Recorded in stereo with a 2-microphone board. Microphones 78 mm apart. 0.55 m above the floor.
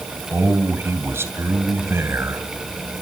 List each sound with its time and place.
0.3 s a man speaking: 30° right (ahead or behind), 3 m